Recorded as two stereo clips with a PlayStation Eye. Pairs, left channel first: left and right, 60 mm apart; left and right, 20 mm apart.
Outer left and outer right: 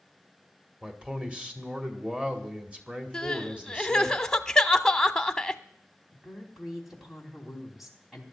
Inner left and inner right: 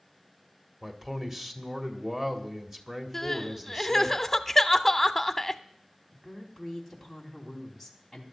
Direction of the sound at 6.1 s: 5° right (ahead or behind).